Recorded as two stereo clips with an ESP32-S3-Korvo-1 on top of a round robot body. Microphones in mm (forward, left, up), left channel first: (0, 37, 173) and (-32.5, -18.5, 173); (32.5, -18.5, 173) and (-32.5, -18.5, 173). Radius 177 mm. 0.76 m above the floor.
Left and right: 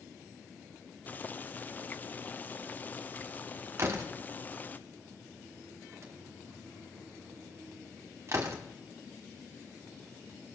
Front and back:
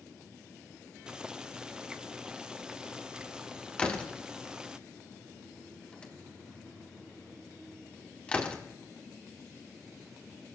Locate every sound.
1.1 s boiling: 110° left, 0.9 m
3.8 s a door slam: 75° right, 1.5 m